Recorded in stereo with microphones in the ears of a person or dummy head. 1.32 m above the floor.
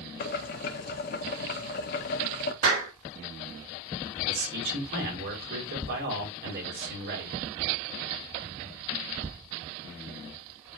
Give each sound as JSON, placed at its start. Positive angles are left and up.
{"t": 0.2, "sound": "boiling", "side_deg": 50, "distance_m": 0.8}
{"t": 2.6, "sound": "a clap", "side_deg": -45, "distance_m": 5.5}
{"t": 4.3, "sound": "a man speaking", "side_deg": -55, "distance_m": 5.0}